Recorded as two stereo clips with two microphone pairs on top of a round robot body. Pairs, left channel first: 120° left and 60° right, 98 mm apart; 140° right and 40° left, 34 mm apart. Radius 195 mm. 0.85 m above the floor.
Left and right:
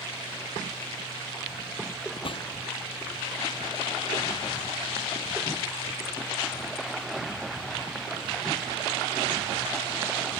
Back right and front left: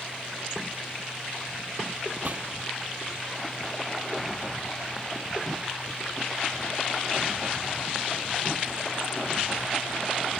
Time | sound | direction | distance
2.2 | a gunshot | 90° left | ?